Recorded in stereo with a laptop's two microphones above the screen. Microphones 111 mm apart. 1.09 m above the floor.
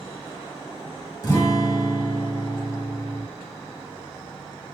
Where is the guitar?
25° left (ahead or behind), 1.6 m.